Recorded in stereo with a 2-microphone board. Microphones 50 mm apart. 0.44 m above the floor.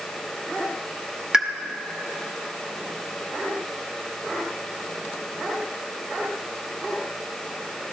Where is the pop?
15° right (ahead or behind), 0.8 m.